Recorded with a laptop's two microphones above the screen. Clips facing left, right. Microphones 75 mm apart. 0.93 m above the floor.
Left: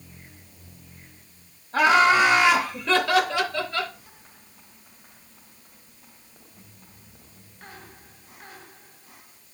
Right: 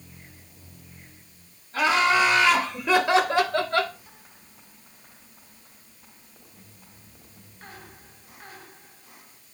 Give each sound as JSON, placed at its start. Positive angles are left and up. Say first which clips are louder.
{"t": 1.7, "sound": "laughter", "louder": "left 4 dB", "side_deg": 55, "distance_m": 1.1}